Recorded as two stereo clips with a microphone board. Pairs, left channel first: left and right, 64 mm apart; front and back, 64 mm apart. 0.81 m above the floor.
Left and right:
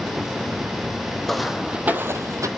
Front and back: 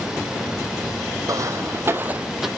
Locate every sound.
1.3 s footsteps: 175° left, 1.6 m; by 2.5 s 95° right, 1.3 m